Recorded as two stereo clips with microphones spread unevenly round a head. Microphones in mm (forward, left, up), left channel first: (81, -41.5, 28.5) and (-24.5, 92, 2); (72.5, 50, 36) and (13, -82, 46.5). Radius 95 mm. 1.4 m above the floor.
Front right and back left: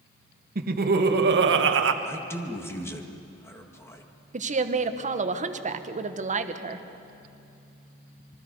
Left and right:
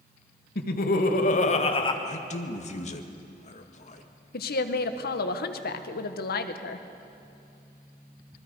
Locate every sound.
0.6 s laughter: 95° left, 1.9 m; by 1.9 s 135° left, 1.2 m
2.0 s a man speaking: 25° left, 1.8 m
4.3 s a woman speaking: 85° left, 1.2 m